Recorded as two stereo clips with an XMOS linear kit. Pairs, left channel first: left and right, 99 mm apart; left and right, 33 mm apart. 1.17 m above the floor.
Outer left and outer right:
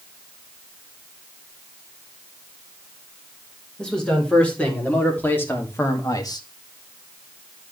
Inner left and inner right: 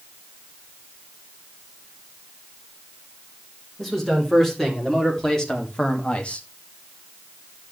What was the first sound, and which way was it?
A man speaking, 10° left (ahead or behind).